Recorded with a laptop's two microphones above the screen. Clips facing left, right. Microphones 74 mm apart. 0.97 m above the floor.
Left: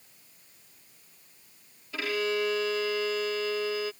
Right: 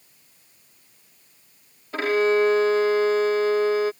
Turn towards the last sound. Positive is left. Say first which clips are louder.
# right 10 dB
turn(degrees=-45)  # may be behind; listen again after turning